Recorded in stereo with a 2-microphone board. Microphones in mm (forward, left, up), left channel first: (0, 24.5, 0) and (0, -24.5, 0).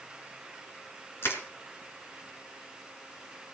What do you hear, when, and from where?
1.2 s crushing: 55° left (ahead or behind), 3 m